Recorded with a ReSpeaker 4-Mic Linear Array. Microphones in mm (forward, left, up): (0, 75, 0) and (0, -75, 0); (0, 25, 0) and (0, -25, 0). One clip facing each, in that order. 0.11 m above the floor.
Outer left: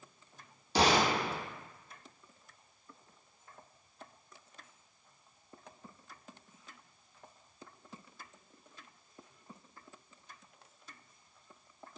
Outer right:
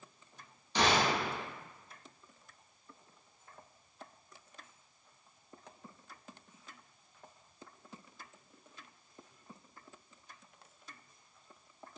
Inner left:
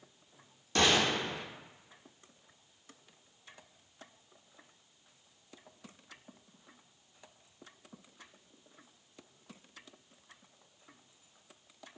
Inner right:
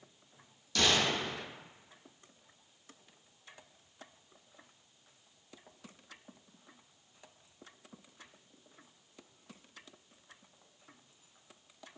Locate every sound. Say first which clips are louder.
0.8 s a gunshot: outer left 2 dB, inner left 2 dB; 35° left (ahead or behind), 0.7 m